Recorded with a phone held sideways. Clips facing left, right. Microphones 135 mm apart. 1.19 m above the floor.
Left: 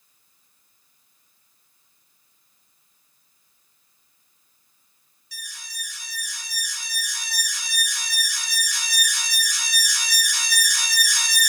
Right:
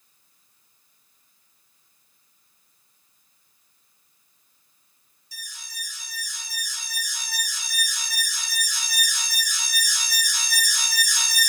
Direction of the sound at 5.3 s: 70° left (ahead or behind).